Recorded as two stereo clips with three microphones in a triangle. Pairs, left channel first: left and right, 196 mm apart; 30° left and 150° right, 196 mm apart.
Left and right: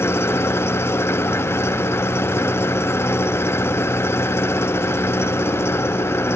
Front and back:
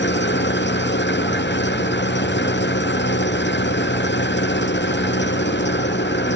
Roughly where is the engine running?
Ahead.